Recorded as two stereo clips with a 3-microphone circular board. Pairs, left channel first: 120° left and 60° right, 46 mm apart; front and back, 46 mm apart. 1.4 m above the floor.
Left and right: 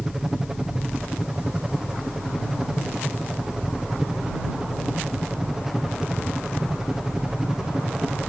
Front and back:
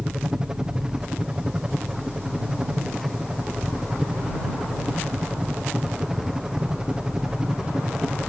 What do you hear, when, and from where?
0.0 s a helicopter: 125° right